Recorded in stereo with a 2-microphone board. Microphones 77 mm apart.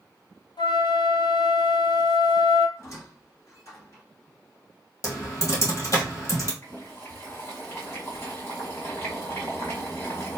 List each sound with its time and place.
0.6 s a flute: 85° left, 0.6 m
2.8 s a squeak: 40° left (ahead or behind), 1.8 m
5.0 s typing on a keyboard: 40° left (ahead or behind), 1.8 m
6.6 s boiling: 35° left (ahead or behind), 1.4 m